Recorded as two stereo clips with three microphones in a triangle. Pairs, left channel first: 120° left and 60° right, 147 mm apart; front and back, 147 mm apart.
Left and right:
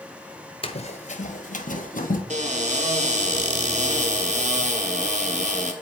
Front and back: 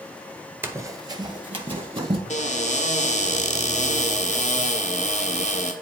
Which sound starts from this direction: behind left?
Running footsteps, at 0.6 s.